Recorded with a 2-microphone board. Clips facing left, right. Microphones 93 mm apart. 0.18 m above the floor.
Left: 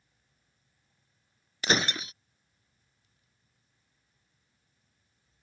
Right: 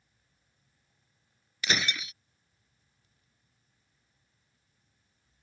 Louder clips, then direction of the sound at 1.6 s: Left 4 dB; 35° left (ahead or behind).